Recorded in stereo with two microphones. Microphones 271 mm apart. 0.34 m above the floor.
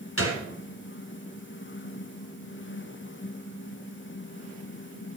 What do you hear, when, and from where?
0.2 s a gunshot: 55° left (ahead or behind), 2.0 m